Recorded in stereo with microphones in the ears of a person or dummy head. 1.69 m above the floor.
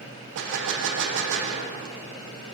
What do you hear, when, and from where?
0.3 s a gunshot: 65° right (ahead or behind), 1.1 m